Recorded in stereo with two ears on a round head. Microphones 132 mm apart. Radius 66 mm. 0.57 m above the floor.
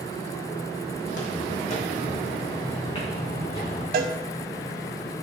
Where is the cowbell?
65° right (ahead or behind), 0.7 m.